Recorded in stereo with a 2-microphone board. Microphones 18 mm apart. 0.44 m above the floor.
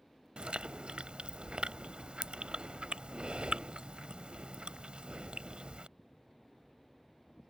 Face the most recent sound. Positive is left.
turn(degrees=-75)  # may be behind; listen again after turning